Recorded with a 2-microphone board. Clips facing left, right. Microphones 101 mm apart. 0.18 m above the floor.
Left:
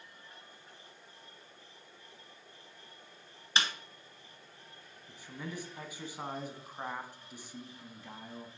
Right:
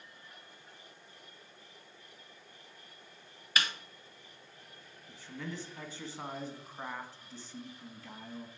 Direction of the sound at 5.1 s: 15° left (ahead or behind).